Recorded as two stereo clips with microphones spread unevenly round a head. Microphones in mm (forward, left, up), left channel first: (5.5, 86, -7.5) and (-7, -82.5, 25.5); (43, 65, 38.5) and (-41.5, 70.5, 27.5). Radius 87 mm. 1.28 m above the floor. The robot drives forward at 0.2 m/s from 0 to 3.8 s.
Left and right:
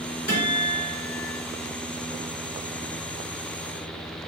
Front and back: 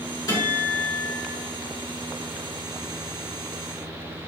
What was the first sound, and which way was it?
A guitar, 25° left.